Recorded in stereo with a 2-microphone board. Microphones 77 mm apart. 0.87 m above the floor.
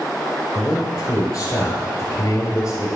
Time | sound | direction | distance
0.6 | a man speaking | 50° left (ahead or behind) | 3 m